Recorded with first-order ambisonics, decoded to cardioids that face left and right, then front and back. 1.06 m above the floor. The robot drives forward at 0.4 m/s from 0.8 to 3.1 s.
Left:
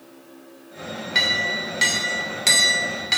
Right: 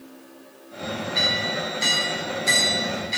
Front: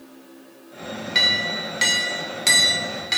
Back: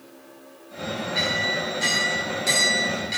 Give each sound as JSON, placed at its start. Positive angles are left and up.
{"t": 1.1, "sound": "a clink", "azimuth_deg": 45, "distance_m": 2.5}